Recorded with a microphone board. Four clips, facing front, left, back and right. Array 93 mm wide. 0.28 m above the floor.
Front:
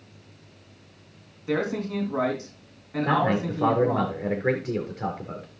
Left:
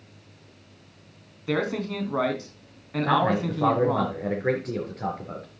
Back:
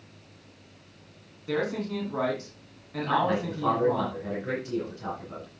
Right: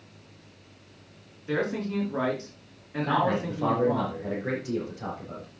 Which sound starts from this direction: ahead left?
A man speaking, at 3.0 s.